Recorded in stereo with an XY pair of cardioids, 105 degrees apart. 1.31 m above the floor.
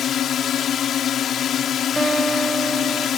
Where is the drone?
60° left.